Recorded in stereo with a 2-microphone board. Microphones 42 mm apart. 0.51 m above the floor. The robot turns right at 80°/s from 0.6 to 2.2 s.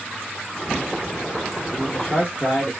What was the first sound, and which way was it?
A man speaking, 155° left.